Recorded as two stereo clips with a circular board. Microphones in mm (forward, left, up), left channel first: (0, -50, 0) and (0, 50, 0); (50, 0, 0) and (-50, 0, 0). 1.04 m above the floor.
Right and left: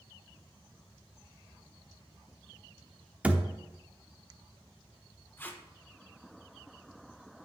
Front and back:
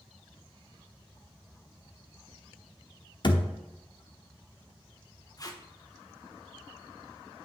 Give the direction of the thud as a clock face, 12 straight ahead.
11 o'clock.